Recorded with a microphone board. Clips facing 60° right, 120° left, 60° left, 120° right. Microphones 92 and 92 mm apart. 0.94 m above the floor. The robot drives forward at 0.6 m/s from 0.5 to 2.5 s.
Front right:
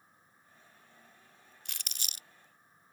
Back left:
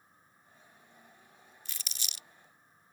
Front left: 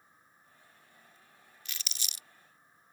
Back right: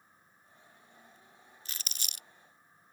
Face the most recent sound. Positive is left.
turn(degrees=-115)